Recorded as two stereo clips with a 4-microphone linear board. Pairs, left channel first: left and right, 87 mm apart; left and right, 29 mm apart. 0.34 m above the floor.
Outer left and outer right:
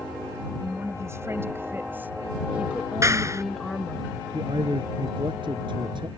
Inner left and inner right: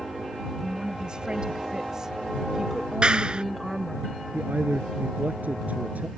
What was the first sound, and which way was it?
A woman speaking, 35° right (ahead or behind).